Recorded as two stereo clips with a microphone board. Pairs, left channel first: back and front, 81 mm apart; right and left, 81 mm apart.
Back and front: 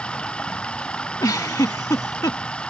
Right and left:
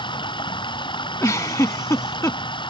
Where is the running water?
100° right.